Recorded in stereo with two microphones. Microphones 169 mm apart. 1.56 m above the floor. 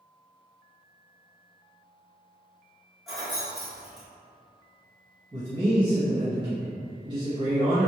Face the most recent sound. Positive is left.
turn(degrees=-25)  # may be behind; listen again after turning